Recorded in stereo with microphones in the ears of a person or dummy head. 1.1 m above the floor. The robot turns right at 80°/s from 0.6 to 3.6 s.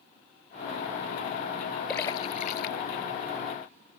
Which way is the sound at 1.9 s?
20° left (ahead or behind).